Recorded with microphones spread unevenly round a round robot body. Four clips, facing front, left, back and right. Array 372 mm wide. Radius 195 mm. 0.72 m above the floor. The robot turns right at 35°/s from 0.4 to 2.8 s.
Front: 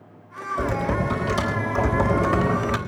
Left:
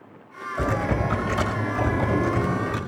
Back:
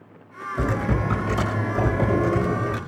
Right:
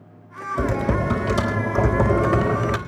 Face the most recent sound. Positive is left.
turn(degrees=-45)